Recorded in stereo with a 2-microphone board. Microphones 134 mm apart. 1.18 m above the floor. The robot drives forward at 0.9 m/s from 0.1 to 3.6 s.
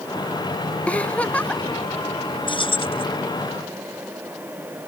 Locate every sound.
0.9 s a giggle: 10° left (ahead or behind)
2.5 s keys jangling: 40° left (ahead or behind); by 3.0 s 45° left (ahead or behind)